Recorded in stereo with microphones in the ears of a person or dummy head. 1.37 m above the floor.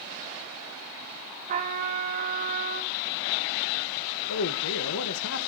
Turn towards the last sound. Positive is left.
turn(degrees=70)  # may be behind; listen again after turning